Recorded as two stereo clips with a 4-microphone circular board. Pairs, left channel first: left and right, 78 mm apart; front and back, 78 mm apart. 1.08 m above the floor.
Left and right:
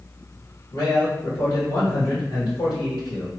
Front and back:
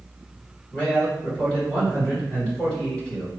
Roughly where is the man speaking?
Left.